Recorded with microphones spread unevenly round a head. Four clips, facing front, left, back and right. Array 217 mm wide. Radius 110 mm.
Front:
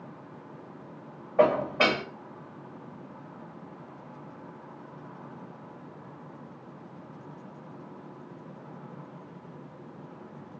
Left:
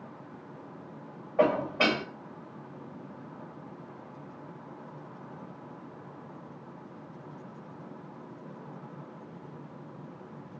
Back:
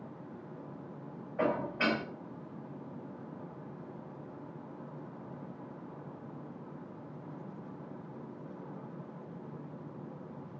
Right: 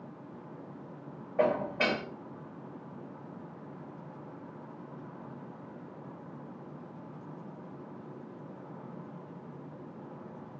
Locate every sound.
1.4 s dishes clattering: 15° left, 4 m